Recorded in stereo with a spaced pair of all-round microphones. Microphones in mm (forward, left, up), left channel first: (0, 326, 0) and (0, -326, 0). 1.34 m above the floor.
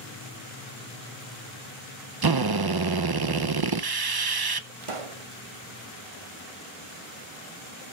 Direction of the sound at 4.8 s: 50° right (ahead or behind).